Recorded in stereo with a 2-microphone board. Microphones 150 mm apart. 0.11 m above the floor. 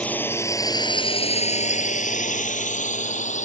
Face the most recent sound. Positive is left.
turn(degrees=55)  # may be behind; listen again after turning